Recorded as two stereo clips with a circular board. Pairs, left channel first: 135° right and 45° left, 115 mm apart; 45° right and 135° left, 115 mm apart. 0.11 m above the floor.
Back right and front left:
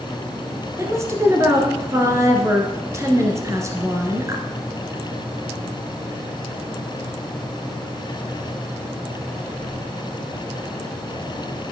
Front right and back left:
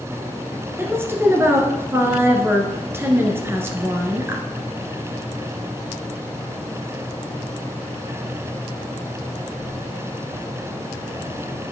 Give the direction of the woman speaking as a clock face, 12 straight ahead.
9 o'clock.